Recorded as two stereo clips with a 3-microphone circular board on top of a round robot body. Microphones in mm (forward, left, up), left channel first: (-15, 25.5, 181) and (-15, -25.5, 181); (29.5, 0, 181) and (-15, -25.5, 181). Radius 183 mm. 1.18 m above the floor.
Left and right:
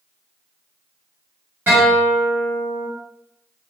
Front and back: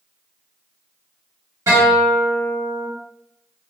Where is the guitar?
140° right, 1.4 m.